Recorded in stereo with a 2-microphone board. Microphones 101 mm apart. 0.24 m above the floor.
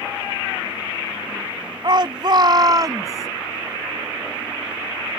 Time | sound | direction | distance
1.8 | a shout | 50° right (ahead or behind) | ?